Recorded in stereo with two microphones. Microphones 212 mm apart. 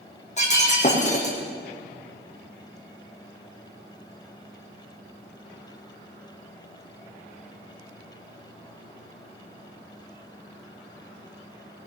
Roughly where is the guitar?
I don't hear a guitar.